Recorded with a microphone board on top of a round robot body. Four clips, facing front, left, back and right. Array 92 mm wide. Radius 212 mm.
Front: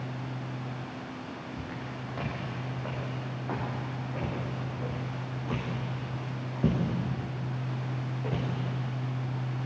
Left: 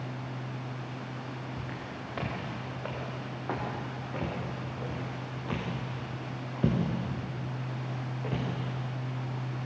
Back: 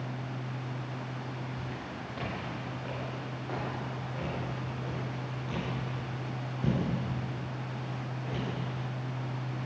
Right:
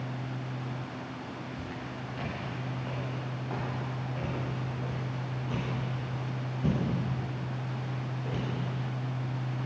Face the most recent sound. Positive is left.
turn(degrees=55)